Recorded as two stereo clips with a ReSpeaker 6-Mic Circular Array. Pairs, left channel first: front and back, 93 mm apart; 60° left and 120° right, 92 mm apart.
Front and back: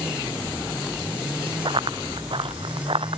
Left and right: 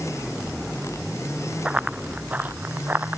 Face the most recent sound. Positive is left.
turn(degrees=170)